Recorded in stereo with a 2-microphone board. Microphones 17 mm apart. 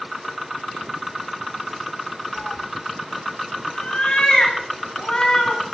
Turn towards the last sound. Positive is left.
turn(degrees=75)  # may be behind; listen again after turning